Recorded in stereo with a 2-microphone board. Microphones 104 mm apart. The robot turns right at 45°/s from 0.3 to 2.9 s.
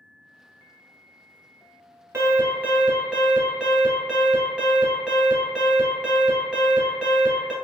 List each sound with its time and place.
2.1 s an alarm: 50° right, 1.1 m; by 7.5 s 15° right, 1.1 m